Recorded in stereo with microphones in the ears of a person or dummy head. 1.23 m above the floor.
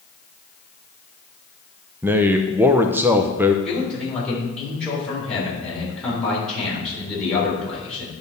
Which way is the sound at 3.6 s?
5° left (ahead or behind).